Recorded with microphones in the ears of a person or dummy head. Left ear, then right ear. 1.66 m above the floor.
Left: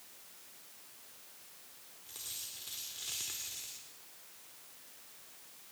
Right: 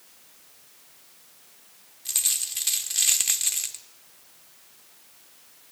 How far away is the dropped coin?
About 1.5 m.